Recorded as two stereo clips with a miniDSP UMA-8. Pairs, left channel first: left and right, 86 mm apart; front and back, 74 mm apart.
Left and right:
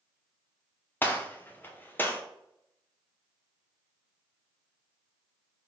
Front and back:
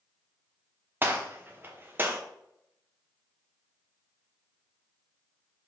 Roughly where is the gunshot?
Behind left.